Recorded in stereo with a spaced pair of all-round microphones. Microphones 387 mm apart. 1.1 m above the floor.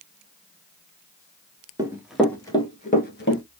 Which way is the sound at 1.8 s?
10° right (ahead or behind).